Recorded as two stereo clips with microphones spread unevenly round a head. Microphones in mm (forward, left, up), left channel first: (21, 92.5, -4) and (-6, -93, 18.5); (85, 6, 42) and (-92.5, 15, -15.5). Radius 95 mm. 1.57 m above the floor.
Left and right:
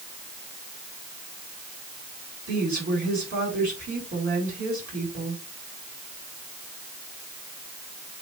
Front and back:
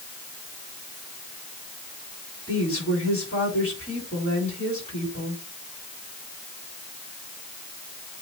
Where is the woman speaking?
55° right, 7 m.